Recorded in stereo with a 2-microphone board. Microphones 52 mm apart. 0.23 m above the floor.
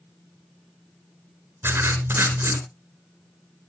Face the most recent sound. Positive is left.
turn(degrees=-45)  # may be behind; listen again after turning